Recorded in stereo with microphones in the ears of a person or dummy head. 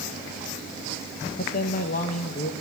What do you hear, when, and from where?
1.4 s a man speaking: 50° left (ahead or behind), 1.2 m